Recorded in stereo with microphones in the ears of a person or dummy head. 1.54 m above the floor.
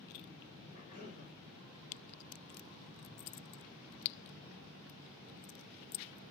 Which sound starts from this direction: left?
A cough, at 0.7 s.